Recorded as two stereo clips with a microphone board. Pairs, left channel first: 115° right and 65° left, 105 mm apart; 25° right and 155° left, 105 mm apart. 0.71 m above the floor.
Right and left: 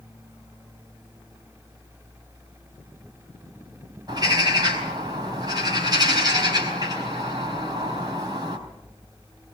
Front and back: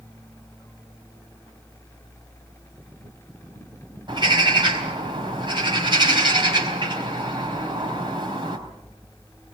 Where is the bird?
115° left, 4.5 m.